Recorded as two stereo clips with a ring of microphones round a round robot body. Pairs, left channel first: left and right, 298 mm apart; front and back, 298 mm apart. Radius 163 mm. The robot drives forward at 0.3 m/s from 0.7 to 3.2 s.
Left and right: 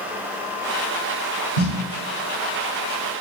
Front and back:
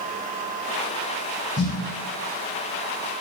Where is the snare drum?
60° left, 2.0 m; by 1.7 s 65° left, 1.9 m.